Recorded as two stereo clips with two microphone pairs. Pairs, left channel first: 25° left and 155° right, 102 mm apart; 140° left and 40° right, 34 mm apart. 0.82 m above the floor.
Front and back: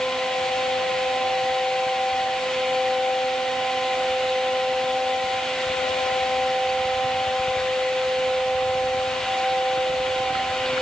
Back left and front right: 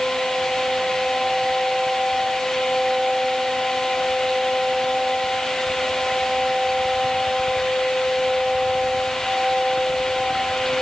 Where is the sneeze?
I don't hear a sneeze.